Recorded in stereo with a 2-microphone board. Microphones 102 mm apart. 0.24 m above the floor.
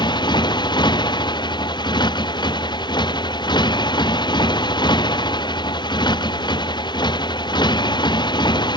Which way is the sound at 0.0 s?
45° left (ahead or behind).